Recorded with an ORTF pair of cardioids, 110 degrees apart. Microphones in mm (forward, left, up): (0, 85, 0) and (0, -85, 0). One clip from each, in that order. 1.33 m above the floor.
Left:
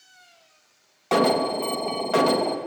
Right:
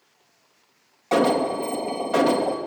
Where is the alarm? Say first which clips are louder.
Even; 25° left, 3 m.